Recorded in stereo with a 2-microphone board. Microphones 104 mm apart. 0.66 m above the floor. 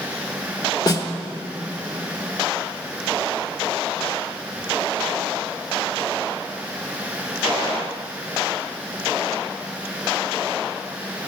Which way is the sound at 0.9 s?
40° left (ahead or behind).